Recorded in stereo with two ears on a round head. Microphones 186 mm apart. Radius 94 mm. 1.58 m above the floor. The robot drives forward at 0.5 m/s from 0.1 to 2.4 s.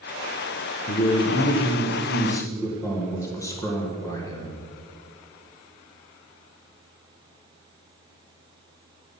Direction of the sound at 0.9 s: 30° left (ahead or behind).